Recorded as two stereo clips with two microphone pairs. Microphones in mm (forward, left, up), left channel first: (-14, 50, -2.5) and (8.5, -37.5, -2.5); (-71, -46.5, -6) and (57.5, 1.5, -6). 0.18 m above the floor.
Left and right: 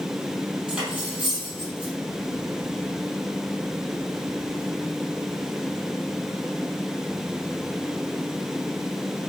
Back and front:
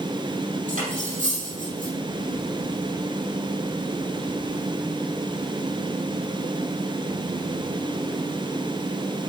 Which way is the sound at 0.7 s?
Straight ahead.